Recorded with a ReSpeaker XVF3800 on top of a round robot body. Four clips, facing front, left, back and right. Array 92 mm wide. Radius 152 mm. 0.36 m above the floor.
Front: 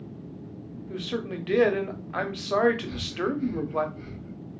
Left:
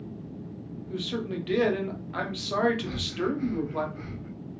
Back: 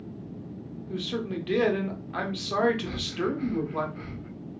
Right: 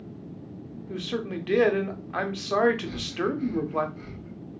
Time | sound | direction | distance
0.9 | a man speaking | 55° right | 0.9 m
2.9 | breathing | 150° left | 0.6 m